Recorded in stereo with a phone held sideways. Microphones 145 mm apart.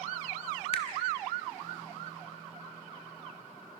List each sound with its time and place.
0.7 s a finger snap: 45° left (ahead or behind), 1.9 m